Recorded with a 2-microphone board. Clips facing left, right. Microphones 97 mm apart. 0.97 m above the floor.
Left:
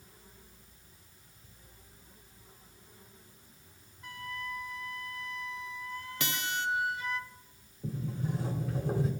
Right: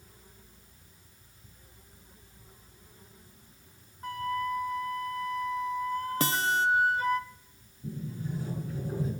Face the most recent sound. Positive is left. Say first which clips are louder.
# left 1 dB
turn(degrees=80)